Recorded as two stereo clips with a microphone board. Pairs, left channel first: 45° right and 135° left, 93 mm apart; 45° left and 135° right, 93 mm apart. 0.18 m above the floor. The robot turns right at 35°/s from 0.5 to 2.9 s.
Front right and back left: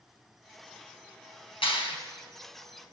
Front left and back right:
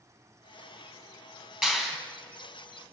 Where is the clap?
55° right, 3.5 m; by 2.0 s 45° right, 3.5 m.